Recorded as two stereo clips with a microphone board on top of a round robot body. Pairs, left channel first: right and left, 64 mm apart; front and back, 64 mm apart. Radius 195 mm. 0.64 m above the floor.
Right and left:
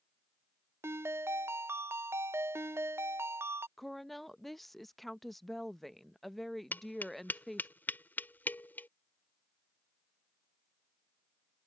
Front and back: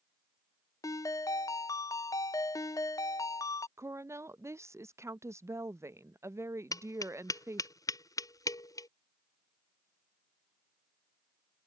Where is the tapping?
25° right.